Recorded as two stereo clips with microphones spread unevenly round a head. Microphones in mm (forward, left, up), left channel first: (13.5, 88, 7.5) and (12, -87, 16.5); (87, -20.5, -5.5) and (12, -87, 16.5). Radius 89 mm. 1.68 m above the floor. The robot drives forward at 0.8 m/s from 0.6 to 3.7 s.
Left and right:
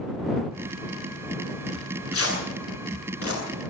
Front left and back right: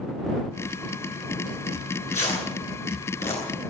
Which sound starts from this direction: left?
Tearing paper, at 1.7 s.